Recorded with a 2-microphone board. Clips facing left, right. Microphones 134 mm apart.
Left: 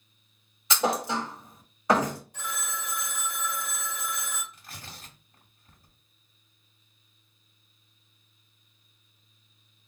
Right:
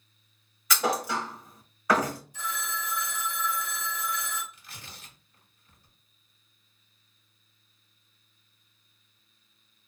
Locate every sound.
0.7 s a thud: 25° left (ahead or behind), 1.2 m
2.3 s a phone ringing: 60° left (ahead or behind), 1.2 m
4.5 s tearing paper: 50° left (ahead or behind), 1.9 m